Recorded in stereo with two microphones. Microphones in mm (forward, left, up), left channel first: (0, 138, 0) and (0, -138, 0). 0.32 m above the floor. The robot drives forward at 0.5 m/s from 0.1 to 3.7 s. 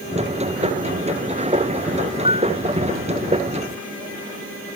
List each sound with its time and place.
2.2 s a piano: 20° right (ahead or behind)